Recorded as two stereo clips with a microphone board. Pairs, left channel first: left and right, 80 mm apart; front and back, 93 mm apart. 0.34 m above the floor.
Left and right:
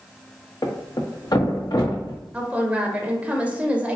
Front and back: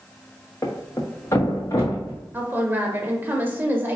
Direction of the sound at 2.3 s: 140° right.